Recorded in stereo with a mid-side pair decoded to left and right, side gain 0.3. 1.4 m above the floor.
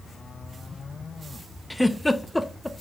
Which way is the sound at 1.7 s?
10° left.